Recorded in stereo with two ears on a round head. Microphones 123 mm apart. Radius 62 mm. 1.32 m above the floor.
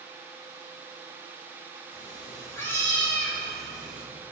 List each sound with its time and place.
1.9 s a cat meowing: 30° left (ahead or behind), 2.0 m; by 4.1 s 10° right (ahead or behind), 1.6 m